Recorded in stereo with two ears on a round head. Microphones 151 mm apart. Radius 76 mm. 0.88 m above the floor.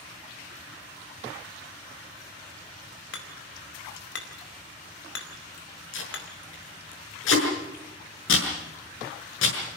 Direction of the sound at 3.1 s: 75° left (ahead or behind).